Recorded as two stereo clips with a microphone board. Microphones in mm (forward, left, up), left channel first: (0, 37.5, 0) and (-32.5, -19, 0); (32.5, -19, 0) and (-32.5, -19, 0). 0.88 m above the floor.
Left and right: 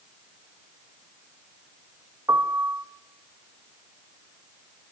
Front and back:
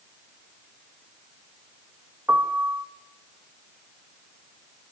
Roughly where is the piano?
Behind right.